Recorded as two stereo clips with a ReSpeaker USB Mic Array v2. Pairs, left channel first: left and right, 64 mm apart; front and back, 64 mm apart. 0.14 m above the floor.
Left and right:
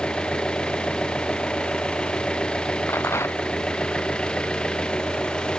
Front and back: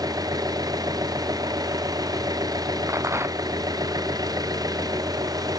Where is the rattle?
135° left.